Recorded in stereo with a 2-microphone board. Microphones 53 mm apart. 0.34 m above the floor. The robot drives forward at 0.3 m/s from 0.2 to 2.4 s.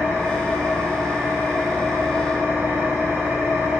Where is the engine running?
65° right (ahead or behind), 0.9 m; by 3.8 s 70° right (ahead or behind), 0.9 m.